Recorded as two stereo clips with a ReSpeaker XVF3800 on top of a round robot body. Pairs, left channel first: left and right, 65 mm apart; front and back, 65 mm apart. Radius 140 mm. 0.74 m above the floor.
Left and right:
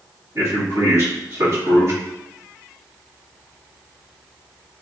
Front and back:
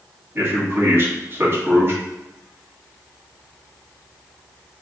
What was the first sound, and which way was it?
A man speaking, 125° right.